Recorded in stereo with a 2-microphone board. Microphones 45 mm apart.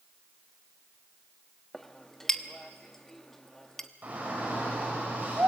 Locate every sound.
1.7 s a clink: 10° left (ahead or behind), 1.1 m
4.0 s a shout: 35° right (ahead or behind), 6.5 m